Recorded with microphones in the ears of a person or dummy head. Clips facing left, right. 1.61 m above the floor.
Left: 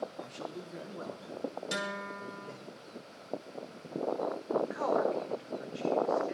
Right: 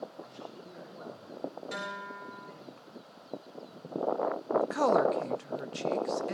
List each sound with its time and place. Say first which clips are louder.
0.2 s a man speaking: left 4 dB; 50° left (ahead or behind), 2.5 m; by 2.7 s 85° left, 5.5 m
1.7 s a guitar: left 3 dB; 60° left (ahead or behind), 3 m
4.6 s a woman speaking: right 6 dB; 70° right (ahead or behind), 1.1 m